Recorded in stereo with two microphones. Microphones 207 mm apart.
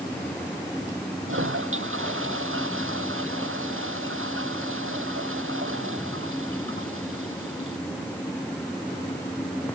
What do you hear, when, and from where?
1.3 s a toilet flushing: 90° right